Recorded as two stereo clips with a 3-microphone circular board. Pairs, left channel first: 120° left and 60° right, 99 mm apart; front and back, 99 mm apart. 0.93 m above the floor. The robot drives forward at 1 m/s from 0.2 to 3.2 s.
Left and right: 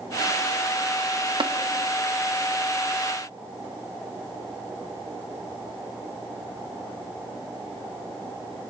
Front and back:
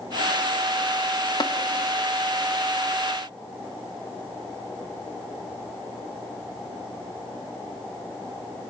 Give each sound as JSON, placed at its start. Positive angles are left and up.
{"t": 1.4, "sound": "tapping", "azimuth_deg": -35, "distance_m": 0.8}